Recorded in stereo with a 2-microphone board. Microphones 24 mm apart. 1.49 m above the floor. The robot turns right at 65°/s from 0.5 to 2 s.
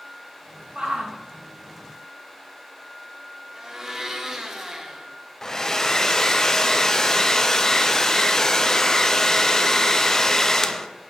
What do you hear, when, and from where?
0.8 s a shout: 30° right (ahead or behind), 2 m; by 1.2 s 60° right (ahead or behind), 2 m
3.5 s a blender: 20° right (ahead or behind), 1.6 m
5.4 s a hair dryer: 20° left (ahead or behind), 0.7 m